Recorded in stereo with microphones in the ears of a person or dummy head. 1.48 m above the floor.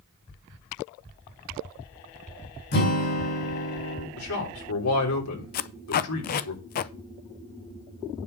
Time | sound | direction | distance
2.7 | a guitar | 55° left (ahead or behind) | 4 m
4.2 | a man speaking | 85° left | 3.5 m
5.5 | tape being pulled | 45° left (ahead or behind) | 0.5 m